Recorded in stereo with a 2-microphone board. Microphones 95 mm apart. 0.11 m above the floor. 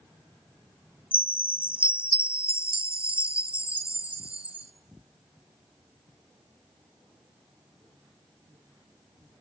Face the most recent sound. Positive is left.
turn(degrees=-15)  # may be behind; listen again after turning